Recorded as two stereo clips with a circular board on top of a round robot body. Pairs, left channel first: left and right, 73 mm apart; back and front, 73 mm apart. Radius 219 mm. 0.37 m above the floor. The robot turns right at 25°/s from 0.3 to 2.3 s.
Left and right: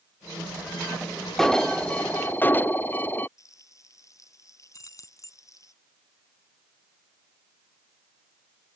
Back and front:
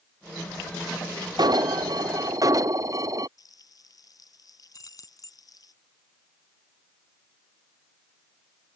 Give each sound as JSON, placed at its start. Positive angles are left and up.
{"t": 1.4, "sound": "an alarm", "azimuth_deg": 5}
{"t": 3.4, "sound": "frying", "azimuth_deg": 140}
{"t": 4.7, "sound": "keys jangling", "azimuth_deg": 135}